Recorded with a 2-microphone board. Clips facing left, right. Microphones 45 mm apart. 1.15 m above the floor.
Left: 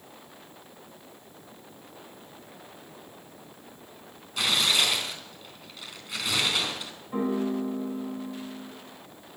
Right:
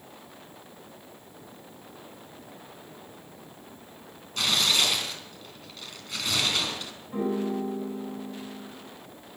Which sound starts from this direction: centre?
Tearing paper, at 4.4 s.